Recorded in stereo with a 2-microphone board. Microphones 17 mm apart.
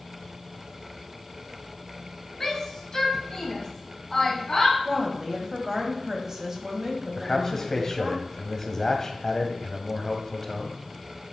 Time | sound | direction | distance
2.4 | a shout | 30° left (ahead or behind) | 1.8 m
4.8 | a woman speaking | 30° right (ahead or behind) | 1.4 m
7.2 | a man speaking | 30° left (ahead or behind) | 1.1 m